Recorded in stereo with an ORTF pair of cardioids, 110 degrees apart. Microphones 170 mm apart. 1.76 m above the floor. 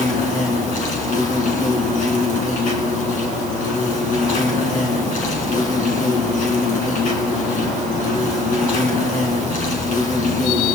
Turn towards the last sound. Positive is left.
turn(degrees=50)